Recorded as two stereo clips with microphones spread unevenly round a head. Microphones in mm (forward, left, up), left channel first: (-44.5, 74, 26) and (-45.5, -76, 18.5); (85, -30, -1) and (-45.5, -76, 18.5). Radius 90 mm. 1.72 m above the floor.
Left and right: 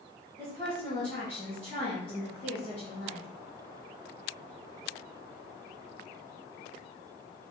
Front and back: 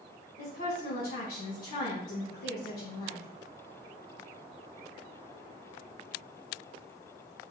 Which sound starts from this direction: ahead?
A woman speaking, at 0.4 s.